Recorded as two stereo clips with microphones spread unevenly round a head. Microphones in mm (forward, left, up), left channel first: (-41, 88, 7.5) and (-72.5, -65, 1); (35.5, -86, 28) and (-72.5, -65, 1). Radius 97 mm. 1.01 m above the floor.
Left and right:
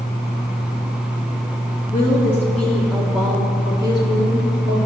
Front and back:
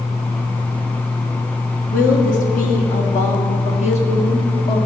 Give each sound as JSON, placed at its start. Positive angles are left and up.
{"t": 1.9, "sound": "a woman speaking", "azimuth_deg": 5, "distance_m": 1.5}